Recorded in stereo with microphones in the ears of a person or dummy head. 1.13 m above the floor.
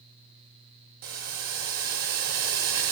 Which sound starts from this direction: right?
Boiling, at 1.0 s.